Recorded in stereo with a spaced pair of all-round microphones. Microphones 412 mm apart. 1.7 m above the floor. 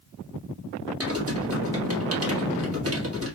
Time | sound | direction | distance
1.0 | typing on a keyboard | 35° right (ahead or behind) | 1.3 m